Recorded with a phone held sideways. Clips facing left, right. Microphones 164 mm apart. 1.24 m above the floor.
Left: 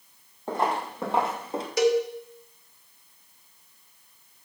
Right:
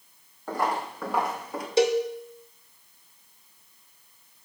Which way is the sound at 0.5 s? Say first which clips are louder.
Left 1 dB; 25° left (ahead or behind).